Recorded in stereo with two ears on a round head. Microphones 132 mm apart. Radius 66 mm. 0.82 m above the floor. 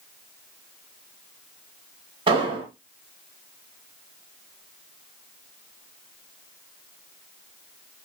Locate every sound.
2.3 s an explosion: 35° right (ahead or behind), 1.1 m